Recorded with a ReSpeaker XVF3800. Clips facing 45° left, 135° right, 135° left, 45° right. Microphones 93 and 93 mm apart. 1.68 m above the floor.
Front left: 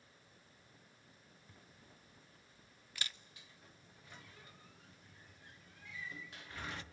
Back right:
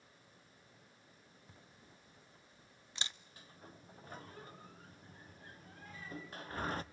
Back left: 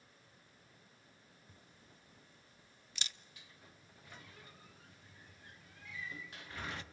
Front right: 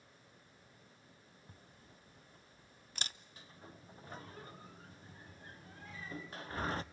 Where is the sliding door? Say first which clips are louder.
Back right 6 dB, front right 6 dB; 90° right, 0.6 m.